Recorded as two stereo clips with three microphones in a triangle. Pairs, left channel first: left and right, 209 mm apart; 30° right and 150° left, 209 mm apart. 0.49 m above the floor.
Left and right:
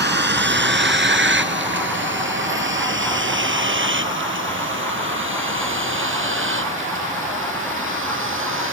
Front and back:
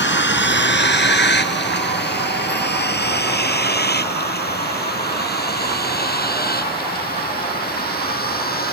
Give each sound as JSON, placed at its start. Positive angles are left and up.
{"t": 0.0, "sound": "a vehicle", "azimuth_deg": -60}